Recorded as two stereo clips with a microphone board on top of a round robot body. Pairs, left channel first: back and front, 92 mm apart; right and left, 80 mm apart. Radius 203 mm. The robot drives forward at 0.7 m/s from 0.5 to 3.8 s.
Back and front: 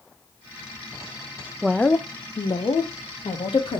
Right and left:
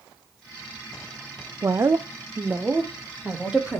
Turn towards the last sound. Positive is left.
turn(degrees=170)